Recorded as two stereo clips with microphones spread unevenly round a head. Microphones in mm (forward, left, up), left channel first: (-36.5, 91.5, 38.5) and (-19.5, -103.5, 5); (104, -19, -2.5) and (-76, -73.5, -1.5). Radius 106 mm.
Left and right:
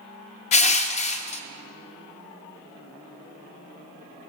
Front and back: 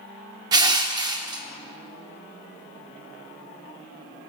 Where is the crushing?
130° left, 0.6 m.